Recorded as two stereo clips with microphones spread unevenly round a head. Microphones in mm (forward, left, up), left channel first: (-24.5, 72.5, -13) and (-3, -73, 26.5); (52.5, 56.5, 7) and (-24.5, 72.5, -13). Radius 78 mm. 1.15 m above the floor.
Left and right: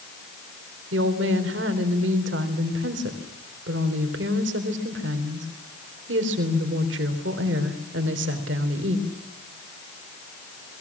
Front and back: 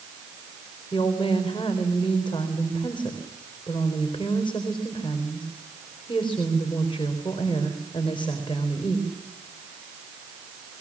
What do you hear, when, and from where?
0.9 s a woman speaking: 75° right, 4 m